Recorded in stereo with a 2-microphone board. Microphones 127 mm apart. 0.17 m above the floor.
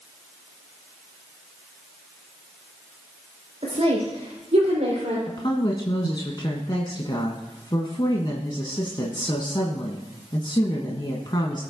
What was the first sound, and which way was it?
A woman speaking, 50° right (ahead or behind).